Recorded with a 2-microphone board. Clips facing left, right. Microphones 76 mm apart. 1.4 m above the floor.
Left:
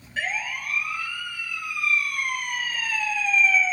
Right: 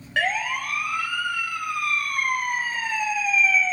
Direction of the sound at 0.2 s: 75° right (ahead or behind).